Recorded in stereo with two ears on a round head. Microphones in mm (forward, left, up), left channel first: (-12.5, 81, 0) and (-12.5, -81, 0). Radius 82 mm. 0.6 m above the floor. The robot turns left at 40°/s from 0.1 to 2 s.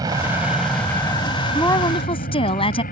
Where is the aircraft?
160° right; by 2.9 s 125° left.